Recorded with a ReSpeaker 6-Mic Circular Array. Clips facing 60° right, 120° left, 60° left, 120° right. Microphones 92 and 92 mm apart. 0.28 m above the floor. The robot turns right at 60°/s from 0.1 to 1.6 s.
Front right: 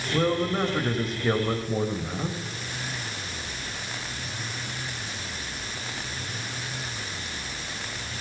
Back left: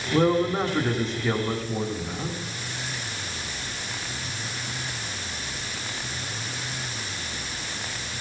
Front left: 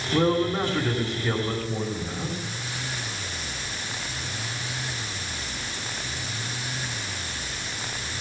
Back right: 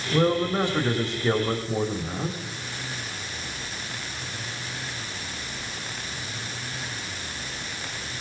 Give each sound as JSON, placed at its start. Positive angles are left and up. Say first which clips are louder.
{"t": 0.1, "sound": "a man speaking", "louder": "back left 4 dB, even", "azimuth_deg": 170, "distance_m": 1.3}